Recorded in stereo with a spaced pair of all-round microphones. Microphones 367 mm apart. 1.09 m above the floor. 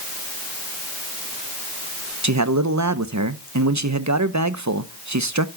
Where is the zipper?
No zipper in this recording.